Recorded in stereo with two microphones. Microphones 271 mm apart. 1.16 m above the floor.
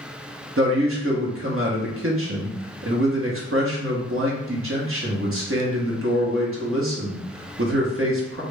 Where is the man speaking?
55° right (ahead or behind), 1.1 m.